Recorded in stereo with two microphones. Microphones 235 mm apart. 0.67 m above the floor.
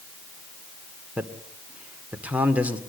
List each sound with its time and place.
1.2 s a man speaking: 5° right (ahead or behind), 2 m